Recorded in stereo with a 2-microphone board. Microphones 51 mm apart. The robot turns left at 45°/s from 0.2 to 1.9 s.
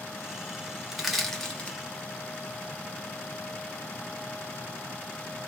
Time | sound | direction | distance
0.9 | crushing | 10° right (ahead or behind) | 1.1 m